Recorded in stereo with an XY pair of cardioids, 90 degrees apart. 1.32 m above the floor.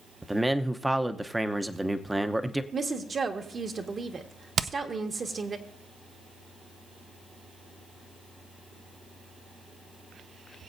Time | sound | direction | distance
0.2 | a man speaking | 10° right | 0.8 m
2.7 | a woman speaking | 40° right | 1.6 m
4.6 | hammering | 55° right | 0.6 m